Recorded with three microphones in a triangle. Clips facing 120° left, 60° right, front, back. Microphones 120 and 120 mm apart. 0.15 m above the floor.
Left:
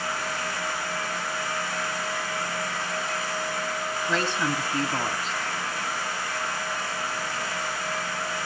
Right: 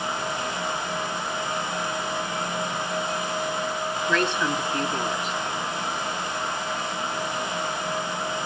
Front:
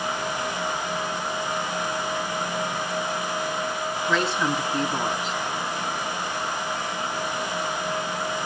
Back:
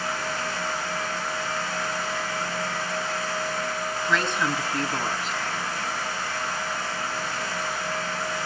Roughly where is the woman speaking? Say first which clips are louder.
Right 2 dB, front 2 dB; left.